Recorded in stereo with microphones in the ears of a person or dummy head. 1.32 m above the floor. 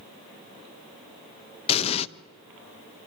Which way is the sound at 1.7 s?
35° left (ahead or behind).